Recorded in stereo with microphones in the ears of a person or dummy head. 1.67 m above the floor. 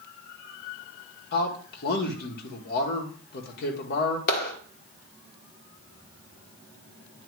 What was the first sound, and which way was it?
A man speaking, 60° left (ahead or behind).